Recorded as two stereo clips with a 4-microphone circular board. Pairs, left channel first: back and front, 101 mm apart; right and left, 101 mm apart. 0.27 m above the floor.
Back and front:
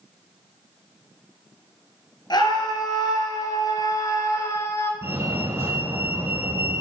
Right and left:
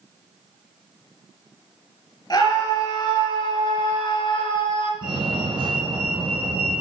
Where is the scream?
135° right, 4.5 m; by 4.9 s 115° right, 3.5 m.